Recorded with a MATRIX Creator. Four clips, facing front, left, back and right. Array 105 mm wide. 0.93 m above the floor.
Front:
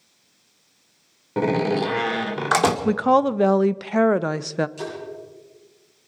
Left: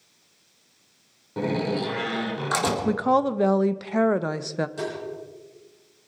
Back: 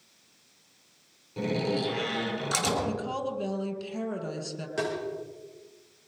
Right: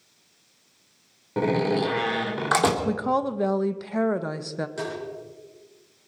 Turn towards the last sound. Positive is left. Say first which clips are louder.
# left 1 dB, back 1 dB
turn(degrees=-165)